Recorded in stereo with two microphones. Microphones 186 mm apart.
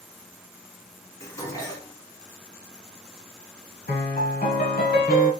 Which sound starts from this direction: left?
A piano, at 3.9 s.